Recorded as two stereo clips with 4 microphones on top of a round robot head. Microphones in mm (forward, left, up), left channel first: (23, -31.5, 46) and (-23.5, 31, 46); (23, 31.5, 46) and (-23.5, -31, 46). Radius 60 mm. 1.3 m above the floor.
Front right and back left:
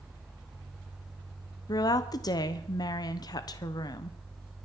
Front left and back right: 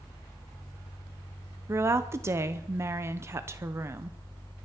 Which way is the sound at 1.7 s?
80° right.